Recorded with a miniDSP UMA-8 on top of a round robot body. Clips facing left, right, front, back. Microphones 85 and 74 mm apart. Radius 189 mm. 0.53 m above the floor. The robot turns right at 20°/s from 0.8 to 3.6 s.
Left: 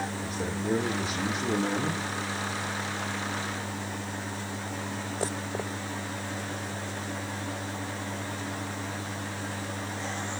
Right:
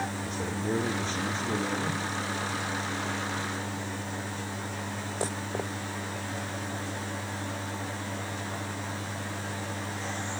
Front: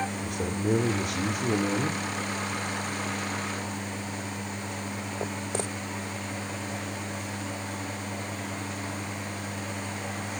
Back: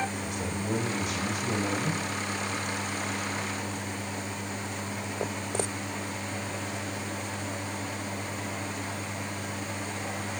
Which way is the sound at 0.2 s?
5° left.